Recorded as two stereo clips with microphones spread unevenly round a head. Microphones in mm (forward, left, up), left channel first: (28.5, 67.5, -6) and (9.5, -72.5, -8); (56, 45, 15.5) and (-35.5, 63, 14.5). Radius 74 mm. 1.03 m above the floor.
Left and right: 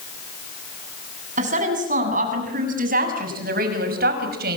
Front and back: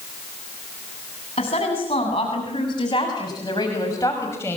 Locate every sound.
1.4 s a woman speaking: 65° right, 8.5 m; by 4.6 s 85° right, 5.5 m